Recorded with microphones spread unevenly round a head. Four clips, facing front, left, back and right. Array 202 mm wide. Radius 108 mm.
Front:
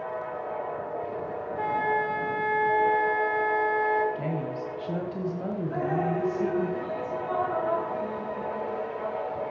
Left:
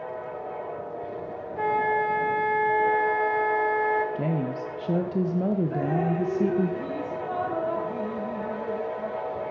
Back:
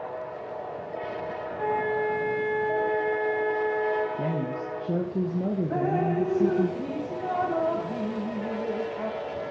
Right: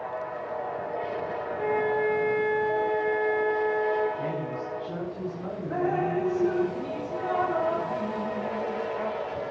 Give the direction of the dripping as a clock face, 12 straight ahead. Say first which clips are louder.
Even, back 1 dB; 6 o'clock.